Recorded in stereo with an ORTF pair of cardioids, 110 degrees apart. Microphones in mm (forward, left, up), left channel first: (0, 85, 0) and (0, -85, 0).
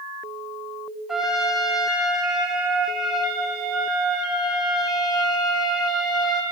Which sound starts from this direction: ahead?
A trumpet, at 1.1 s.